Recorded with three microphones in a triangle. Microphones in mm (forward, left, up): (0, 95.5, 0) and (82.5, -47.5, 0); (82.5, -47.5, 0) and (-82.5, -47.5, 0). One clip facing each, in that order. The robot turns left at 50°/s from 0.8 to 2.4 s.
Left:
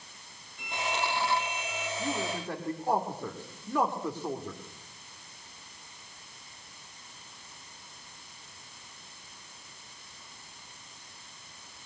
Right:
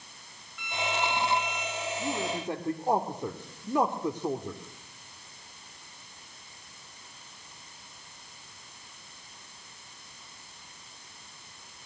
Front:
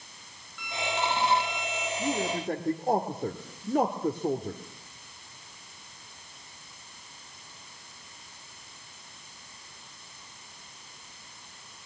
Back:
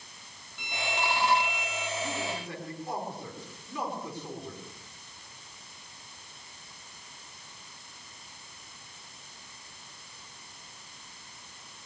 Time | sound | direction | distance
0.6 | a violin | 140° left | 1.2 m
2.0 | a man speaking | 30° left | 1.7 m